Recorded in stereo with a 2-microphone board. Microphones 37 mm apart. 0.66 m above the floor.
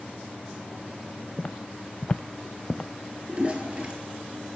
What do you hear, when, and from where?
1.4 s footsteps: 30° left (ahead or behind), 0.9 m; by 2.9 s 10° left (ahead or behind), 0.9 m
3.3 s a toilet flushing: 30° right (ahead or behind), 4 m